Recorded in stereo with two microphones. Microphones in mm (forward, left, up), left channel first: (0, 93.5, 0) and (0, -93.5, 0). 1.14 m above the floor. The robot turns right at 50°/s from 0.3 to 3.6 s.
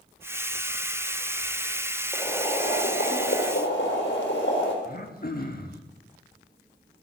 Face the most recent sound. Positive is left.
turn(degrees=55)  # may be behind; listen again after turning